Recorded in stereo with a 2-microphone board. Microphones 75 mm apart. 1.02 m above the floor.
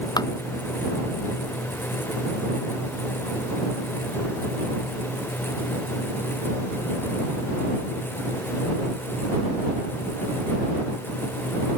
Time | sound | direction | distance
0.2 | tapping | 65° left (ahead or behind) | ?